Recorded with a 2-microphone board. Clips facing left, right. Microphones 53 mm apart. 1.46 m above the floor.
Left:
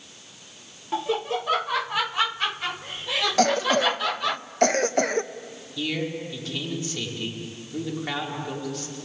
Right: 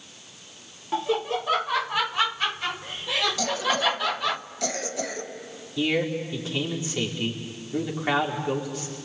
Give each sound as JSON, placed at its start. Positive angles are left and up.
{"t": 0.9, "sound": "laughter", "side_deg": 0, "distance_m": 0.7}
{"t": 3.4, "sound": "a cough", "side_deg": 50, "distance_m": 1.1}
{"t": 5.8, "sound": "a man speaking", "side_deg": -25, "distance_m": 4.5}